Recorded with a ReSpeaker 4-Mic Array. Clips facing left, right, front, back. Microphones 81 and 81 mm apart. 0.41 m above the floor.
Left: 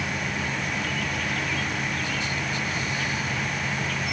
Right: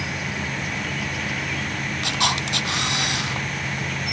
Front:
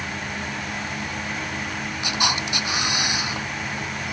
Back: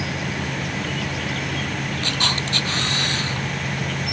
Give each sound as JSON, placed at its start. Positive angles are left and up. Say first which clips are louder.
{"t": 0.0, "sound": "an insect", "louder": "even, back 3 dB", "azimuth_deg": -175}
{"t": 2.0, "sound": "a camera shutter", "louder": "right 4 dB, front 3 dB", "azimuth_deg": -80}